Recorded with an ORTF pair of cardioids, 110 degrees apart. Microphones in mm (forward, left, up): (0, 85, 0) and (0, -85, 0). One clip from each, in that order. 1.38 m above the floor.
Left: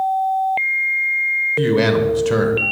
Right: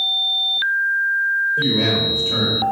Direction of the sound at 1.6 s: 50° left.